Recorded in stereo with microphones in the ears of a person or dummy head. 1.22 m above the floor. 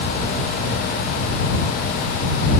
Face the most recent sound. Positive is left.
No sound to turn to.